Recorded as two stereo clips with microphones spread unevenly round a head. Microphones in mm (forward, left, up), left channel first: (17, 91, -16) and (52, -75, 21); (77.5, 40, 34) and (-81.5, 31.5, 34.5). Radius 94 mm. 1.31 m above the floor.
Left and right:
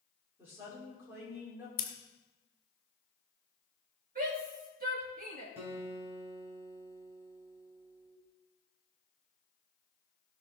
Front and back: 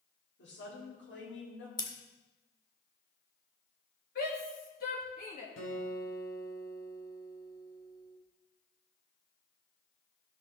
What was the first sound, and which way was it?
A woman speaking, straight ahead.